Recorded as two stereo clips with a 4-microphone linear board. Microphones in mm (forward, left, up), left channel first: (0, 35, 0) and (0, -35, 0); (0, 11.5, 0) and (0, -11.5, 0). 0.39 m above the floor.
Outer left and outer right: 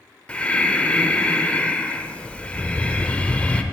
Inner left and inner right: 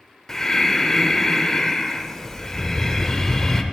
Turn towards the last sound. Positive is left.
turn(degrees=15)  # may be behind; listen again after turning